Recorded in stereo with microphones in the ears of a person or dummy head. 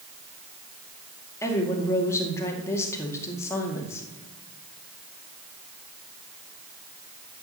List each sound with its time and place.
1.4 s a woman speaking: 15° left (ahead or behind), 2 m